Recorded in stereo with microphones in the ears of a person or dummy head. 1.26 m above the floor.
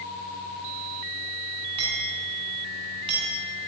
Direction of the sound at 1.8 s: 35° right (ahead or behind).